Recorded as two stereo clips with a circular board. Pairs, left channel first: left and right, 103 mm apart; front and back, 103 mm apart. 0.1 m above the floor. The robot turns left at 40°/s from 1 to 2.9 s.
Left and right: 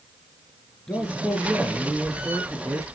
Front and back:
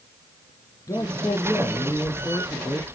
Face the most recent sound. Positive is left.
turn(degrees=-65)